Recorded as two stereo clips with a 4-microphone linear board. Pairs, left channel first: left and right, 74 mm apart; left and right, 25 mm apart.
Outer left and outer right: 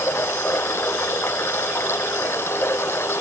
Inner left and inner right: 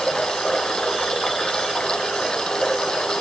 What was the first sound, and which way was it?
Running water, 35° left (ahead or behind).